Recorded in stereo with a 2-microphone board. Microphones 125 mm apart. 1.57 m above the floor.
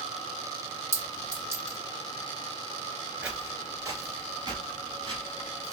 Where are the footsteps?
10° right (ahead or behind), 1.6 m; by 5.7 s 50° right (ahead or behind), 3 m.